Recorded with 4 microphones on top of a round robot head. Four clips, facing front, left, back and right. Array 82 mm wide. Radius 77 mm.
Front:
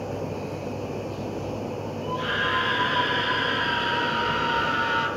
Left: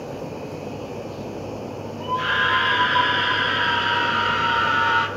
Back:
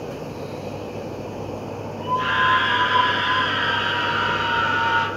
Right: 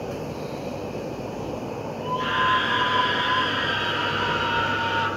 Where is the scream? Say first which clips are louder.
Left 2 dB, back 8 dB; 115° left, 8 m; by 5.1 s 105° left, 6.5 m.